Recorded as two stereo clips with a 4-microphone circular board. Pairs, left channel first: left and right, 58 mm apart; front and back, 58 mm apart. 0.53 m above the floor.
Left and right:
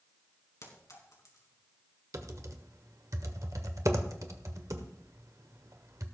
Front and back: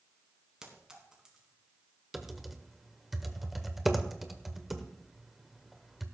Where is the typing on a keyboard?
95° right, 1.1 m.